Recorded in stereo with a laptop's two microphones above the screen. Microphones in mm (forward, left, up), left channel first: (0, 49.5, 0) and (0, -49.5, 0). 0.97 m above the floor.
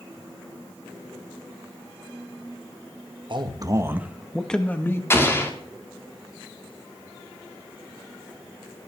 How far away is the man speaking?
About 1.3 m.